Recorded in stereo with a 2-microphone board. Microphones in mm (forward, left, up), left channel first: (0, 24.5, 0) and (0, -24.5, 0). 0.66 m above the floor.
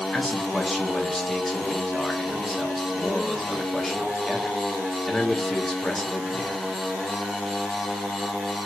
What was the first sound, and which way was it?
A man speaking, 5° left (ahead or behind).